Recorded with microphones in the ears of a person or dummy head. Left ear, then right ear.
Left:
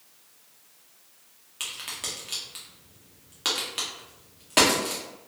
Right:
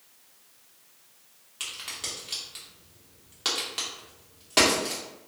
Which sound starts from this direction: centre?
A crack, at 1.6 s.